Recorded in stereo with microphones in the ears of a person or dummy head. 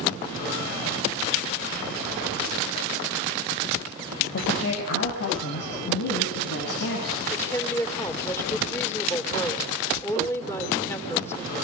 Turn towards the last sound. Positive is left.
turn(degrees=15)  # may be behind; listen again after turning